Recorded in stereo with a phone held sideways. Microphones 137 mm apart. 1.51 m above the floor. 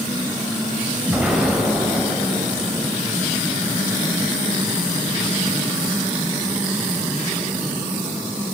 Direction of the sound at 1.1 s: 5° right (ahead or behind).